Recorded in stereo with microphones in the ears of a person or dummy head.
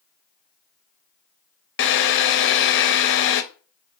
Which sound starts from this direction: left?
A drill, at 1.8 s.